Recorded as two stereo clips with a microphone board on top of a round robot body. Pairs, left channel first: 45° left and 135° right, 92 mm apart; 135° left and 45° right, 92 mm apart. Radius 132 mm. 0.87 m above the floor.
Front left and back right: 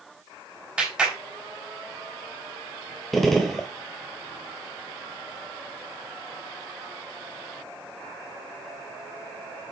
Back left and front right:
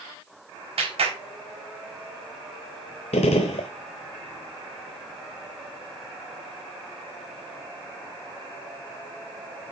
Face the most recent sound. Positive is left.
turn(degrees=135)